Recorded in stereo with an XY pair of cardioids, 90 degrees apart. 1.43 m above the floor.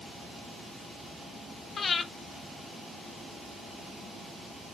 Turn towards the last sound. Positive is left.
turn(degrees=45)